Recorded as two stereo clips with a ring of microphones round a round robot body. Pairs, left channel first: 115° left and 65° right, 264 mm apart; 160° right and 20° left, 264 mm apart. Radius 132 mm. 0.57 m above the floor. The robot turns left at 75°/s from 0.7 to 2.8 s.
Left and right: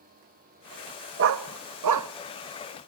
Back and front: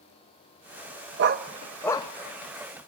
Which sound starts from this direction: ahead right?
A dog barking, at 1.2 s.